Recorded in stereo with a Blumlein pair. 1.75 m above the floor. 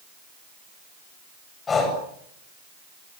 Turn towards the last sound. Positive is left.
turn(degrees=20)